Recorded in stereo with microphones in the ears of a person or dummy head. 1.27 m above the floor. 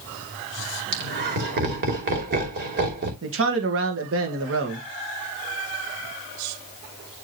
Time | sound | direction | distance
0.9 | laughter | 50° right (ahead or behind) | 2.5 m
3.2 | a man speaking | 65° right (ahead or behind) | 1.4 m